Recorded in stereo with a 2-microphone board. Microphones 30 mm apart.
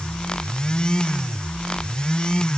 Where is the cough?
No cough in this recording.